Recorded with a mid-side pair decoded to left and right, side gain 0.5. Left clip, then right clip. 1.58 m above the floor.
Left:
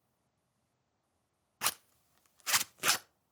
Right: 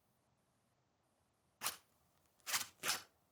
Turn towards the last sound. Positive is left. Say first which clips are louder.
# left 10 dB
turn(degrees=60)